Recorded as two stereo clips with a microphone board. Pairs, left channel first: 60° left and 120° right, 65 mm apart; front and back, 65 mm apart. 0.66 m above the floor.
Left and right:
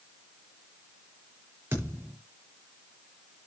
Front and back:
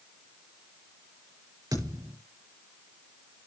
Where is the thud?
175° right, 5.5 m.